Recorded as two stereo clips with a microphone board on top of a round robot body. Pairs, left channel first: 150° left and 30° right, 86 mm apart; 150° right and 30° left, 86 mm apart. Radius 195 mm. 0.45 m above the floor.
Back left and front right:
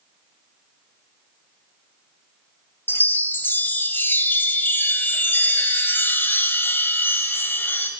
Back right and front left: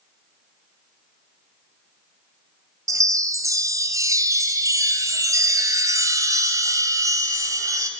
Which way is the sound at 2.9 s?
80° left.